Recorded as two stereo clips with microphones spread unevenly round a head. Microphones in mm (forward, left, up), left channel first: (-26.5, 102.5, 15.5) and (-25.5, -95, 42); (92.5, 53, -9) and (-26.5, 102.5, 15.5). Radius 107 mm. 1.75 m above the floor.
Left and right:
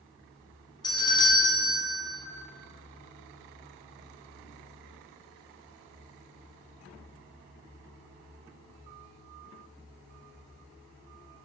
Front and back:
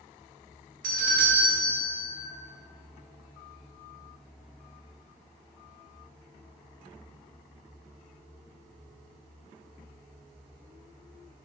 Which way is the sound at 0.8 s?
160° left.